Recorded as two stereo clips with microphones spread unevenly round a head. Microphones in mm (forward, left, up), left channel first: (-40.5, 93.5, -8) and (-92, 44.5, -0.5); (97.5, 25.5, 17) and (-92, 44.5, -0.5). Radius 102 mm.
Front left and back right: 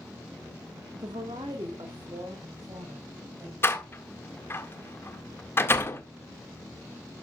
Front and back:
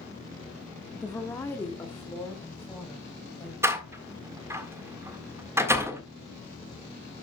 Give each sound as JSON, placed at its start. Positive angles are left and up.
{"t": 0.9, "sound": "a woman speaking", "azimuth_deg": -90, "distance_m": 1.0}
{"t": 3.6, "sound": "a door slam", "azimuth_deg": 100, "distance_m": 1.7}